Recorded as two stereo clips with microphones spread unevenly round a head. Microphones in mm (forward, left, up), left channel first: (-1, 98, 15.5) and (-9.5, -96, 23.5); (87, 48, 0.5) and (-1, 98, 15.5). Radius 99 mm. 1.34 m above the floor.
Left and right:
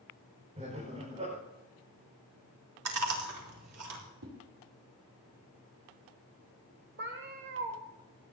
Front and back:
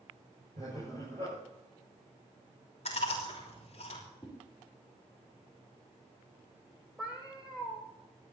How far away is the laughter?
About 5.5 m.